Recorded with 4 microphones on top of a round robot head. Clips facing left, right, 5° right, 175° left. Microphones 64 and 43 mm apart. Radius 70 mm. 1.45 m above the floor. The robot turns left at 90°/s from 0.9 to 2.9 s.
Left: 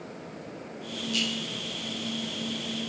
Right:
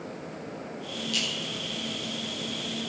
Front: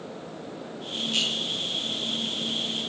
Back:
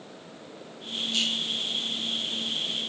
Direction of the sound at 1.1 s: 45° right.